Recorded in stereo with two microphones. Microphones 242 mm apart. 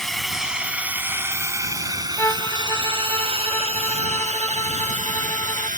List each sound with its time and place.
0.0 s a drone: centre (ahead or behind); by 5.8 s 35° right (ahead or behind)
2.2 s a violin: 10° left (ahead or behind)